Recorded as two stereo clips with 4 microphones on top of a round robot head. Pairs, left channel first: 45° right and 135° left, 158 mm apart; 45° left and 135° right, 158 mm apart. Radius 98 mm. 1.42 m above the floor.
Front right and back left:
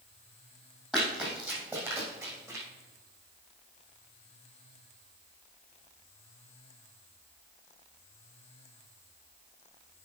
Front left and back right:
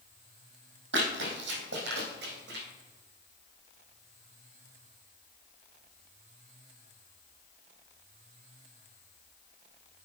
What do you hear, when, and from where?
0.9 s running footsteps: 140° right, 3 m; by 2.6 s 155° right, 4 m